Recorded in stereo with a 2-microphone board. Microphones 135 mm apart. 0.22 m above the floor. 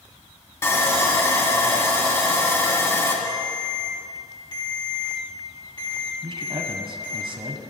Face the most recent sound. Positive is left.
turn(degrees=-45)  # may be behind; listen again after turning